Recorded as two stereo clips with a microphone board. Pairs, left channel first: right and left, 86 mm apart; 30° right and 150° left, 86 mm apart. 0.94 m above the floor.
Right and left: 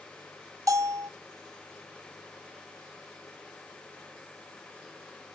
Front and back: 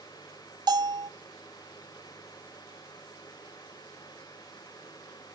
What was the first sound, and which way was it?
A bell, 130° left.